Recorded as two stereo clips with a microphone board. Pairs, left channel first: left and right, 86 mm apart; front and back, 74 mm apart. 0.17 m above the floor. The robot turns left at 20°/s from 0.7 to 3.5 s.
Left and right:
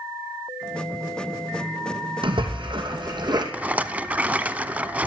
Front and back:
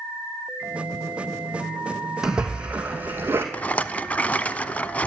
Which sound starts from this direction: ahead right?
A rattle, at 3.5 s.